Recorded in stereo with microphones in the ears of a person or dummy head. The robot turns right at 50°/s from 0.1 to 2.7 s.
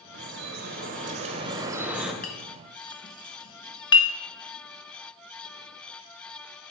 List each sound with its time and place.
0.1 s dripping: 95° right, 1.1 m; by 2.1 s 5° left, 1.1 m
2.2 s a clink: 45° left (ahead or behind), 0.7 m; by 4.1 s 25° left (ahead or behind), 0.7 m